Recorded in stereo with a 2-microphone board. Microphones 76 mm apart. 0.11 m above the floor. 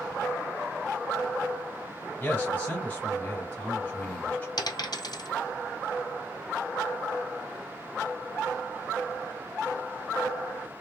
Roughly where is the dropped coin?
Left.